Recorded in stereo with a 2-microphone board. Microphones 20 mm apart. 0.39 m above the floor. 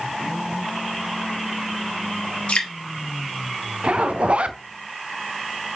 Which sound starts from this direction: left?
Dripping, at 2.5 s.